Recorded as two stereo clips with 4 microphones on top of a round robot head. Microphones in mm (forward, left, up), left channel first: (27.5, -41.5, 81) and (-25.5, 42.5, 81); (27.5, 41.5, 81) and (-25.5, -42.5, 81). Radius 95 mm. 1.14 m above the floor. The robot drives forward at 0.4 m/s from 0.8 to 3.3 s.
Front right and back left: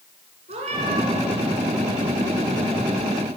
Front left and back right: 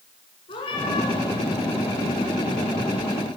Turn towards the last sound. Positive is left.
turn(degrees=120)